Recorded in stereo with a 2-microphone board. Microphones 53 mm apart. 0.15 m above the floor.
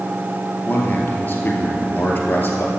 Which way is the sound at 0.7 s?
30° left (ahead or behind).